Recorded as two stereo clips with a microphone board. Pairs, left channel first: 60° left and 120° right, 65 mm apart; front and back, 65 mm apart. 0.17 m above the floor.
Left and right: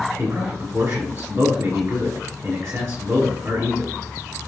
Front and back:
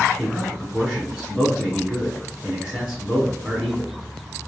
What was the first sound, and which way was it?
A man speaking, 95° right.